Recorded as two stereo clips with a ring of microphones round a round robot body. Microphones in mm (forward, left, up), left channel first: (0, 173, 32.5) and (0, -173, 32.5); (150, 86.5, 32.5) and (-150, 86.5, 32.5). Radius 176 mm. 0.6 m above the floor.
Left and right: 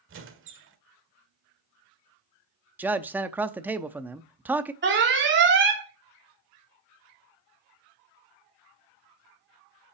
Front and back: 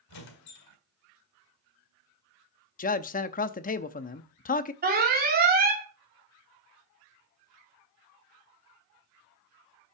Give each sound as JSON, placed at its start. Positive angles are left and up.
{"t": 0.1, "sound": "a squeak", "azimuth_deg": -35, "distance_m": 1.5}
{"t": 2.8, "sound": "a man speaking", "azimuth_deg": -10, "distance_m": 0.6}
{"t": 4.8, "sound": "an alarm", "azimuth_deg": -130, "distance_m": 2.5}